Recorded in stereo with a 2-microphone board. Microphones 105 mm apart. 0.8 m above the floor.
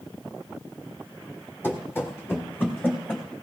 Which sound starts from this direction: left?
Running footsteps, at 1.6 s.